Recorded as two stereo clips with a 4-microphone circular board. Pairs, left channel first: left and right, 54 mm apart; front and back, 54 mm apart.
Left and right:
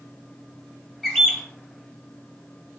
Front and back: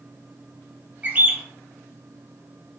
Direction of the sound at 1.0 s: 175° right.